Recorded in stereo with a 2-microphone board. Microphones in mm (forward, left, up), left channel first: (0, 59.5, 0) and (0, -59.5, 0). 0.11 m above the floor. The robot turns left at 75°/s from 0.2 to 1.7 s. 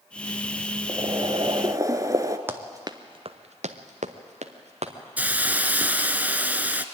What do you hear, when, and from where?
0.9 s boiling: 55° right, 0.9 m; by 2.4 s 120° right, 0.9 m
2.5 s running footsteps: 20° right (ahead or behind), 1.6 m; by 4.9 s 60° right (ahead or behind), 2.5 m
5.2 s a hiss: 15° right (ahead or behind), 0.7 m